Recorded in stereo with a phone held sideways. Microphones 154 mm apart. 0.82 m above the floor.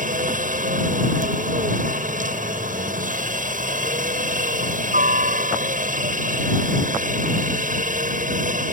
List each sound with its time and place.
0.0 s a helicopter: 60° right (ahead or behind)